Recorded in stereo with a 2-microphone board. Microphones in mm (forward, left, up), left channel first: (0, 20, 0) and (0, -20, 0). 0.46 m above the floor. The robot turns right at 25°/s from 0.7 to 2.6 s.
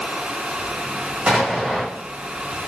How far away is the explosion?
About 1.3 m.